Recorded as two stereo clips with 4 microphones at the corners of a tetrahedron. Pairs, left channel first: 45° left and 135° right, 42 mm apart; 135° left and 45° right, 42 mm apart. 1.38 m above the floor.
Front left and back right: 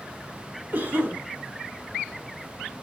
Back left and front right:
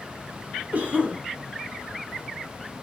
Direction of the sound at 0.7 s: 95° right.